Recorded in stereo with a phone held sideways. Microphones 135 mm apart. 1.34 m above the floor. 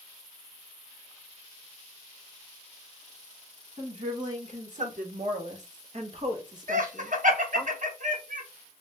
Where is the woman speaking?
60° right (ahead or behind), 1.7 m; by 7.7 s 10° right (ahead or behind), 1.6 m.